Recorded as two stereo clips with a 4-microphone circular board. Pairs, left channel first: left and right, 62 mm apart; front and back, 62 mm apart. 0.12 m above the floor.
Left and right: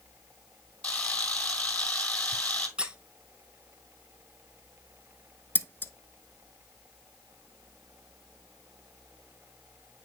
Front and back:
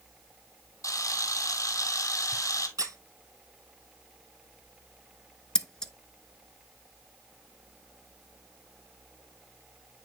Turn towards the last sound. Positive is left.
turn(degrees=70)